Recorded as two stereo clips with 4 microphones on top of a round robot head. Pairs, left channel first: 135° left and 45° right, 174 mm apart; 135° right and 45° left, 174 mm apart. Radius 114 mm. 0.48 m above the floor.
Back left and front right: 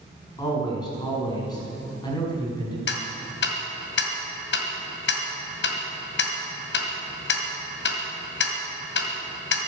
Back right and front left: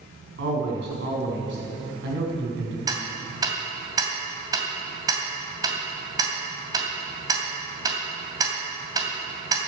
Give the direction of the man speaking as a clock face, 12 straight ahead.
10 o'clock.